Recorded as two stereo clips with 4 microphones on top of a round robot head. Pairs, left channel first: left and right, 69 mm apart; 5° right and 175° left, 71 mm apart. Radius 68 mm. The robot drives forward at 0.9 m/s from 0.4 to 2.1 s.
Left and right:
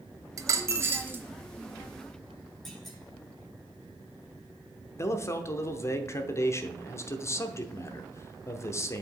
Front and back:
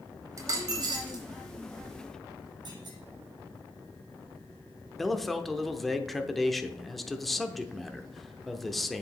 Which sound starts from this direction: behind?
A clunk, at 2.6 s.